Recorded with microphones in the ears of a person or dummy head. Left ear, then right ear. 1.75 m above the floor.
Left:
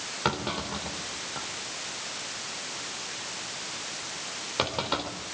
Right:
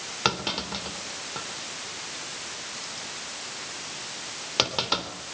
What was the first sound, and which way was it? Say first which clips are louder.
A clunk: right 3 dB; 30° right (ahead or behind).